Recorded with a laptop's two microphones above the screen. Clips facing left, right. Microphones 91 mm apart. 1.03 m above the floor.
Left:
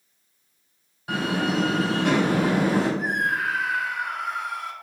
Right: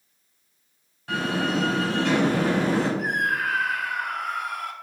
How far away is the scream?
About 2.5 m.